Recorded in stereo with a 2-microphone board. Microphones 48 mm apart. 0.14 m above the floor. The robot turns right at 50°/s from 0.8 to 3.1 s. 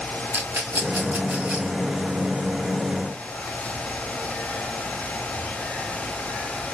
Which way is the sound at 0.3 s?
50° right (ahead or behind).